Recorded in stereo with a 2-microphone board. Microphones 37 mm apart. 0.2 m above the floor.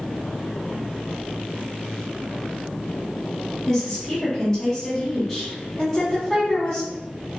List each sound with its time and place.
3.7 s a woman speaking: 15° left (ahead or behind), 1.2 m